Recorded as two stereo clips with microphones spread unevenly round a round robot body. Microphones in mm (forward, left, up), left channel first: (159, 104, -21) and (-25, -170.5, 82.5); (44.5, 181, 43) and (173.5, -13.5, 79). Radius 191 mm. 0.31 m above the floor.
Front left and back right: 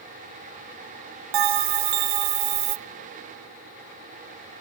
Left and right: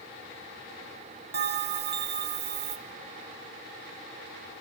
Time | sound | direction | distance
1.3 | a bell | 105° right | 0.6 m